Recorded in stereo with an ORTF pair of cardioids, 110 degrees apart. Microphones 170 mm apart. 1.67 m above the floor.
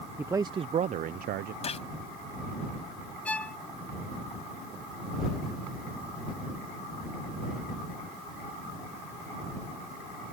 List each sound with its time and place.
0.2 s a man speaking: 15° right; by 1.5 s 70° right
1.6 s a gunshot: 40° left
3.2 s a violin: 5° left